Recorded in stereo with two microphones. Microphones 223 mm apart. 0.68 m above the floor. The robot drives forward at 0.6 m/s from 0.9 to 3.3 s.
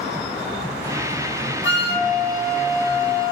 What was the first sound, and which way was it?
A flute, 65° left (ahead or behind).